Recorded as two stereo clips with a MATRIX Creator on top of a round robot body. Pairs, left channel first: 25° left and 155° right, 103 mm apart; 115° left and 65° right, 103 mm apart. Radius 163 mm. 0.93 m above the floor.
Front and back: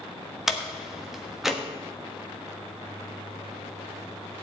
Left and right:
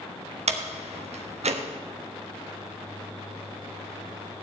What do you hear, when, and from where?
0.5 s a door slam: 70° right, 1.4 m